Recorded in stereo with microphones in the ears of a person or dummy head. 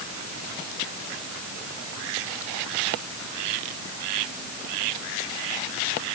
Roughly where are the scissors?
No scissors in this recording.